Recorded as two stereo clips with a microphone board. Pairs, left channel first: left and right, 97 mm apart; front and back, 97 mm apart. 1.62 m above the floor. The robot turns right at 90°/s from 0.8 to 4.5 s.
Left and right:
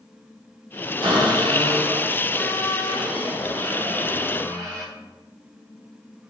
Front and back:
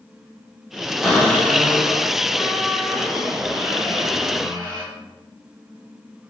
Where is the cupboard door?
100° right, 1.1 m; by 4.8 s 145° right, 1.1 m.